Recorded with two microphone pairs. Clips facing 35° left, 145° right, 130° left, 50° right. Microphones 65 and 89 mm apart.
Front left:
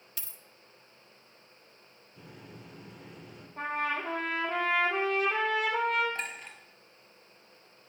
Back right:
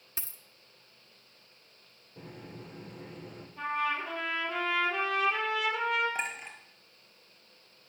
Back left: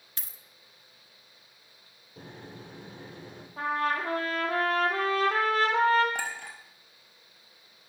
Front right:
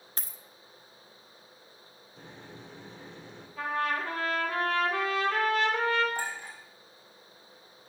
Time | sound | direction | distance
0.2 | a dropped coin | 95° right | 1.0 m
2.2 | a microwave | 170° left | 3.5 m
3.6 | a trumpet | 80° left | 3 m
6.2 | a clink | 140° left | 2.5 m